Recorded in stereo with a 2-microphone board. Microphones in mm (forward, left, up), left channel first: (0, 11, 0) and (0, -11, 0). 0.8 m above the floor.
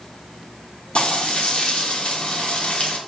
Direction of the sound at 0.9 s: 60° left (ahead or behind).